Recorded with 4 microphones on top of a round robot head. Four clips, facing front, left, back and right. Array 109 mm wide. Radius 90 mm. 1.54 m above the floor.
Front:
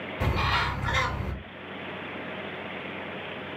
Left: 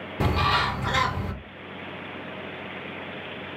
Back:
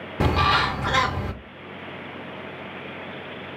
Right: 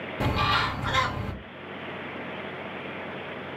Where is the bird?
170° left, 0.6 m.